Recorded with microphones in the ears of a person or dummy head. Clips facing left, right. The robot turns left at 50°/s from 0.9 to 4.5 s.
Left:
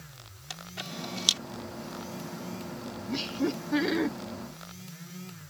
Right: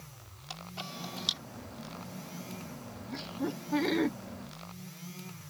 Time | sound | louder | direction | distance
0.5 | a camera shutter | left 2 dB | 15° left (ahead or behind) | ?
3.1 | laughter | left 6 dB | 60° left | ?